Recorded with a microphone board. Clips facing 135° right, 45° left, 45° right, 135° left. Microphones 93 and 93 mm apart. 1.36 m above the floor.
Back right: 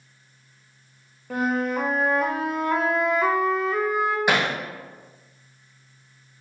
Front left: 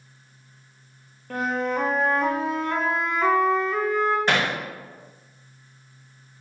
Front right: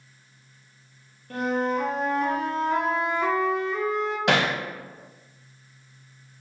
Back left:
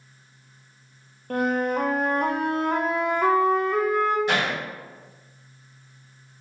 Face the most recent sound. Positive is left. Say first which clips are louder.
# back right 1 dB, front right 2 dB
turn(degrees=-55)